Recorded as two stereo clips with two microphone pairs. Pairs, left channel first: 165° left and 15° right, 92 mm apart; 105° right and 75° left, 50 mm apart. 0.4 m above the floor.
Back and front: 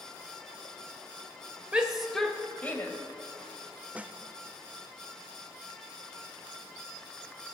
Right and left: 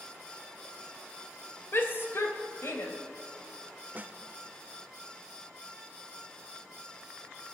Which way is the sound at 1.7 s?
90° right.